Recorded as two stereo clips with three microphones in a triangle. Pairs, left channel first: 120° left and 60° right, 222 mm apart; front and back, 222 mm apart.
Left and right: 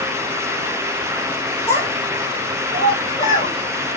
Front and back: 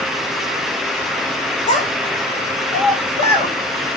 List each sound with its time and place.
1.7 s a child speaking: 60° left, 2.5 m